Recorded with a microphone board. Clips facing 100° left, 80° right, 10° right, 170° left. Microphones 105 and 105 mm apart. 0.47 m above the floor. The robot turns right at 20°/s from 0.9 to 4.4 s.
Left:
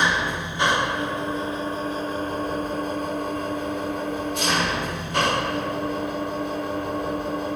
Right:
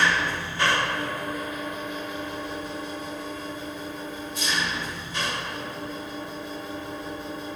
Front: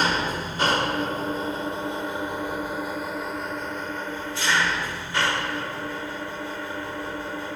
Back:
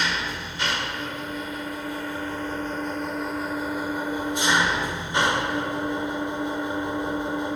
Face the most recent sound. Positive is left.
turn(degrees=100)